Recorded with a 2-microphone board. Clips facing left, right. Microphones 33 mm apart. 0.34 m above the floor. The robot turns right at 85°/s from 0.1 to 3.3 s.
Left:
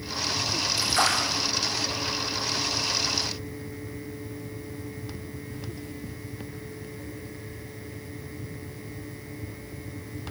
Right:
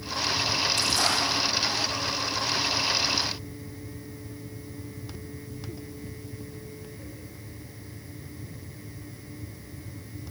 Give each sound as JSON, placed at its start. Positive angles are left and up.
{"t": 0.8, "sound": "a splash", "azimuth_deg": 20, "distance_m": 8.0}